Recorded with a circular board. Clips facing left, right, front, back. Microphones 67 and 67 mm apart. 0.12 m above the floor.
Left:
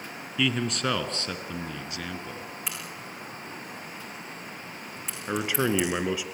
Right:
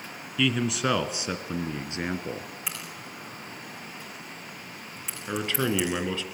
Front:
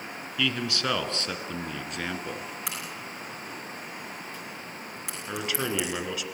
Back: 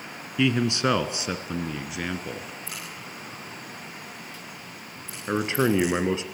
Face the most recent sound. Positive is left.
turn(degrees=155)